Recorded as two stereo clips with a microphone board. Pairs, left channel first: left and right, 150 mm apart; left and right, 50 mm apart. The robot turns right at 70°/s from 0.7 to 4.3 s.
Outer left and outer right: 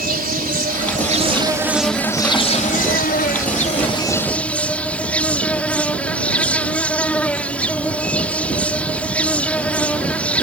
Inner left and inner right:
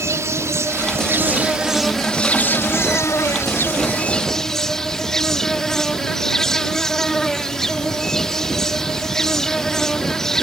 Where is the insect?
80° right; by 10.4 s 170° left.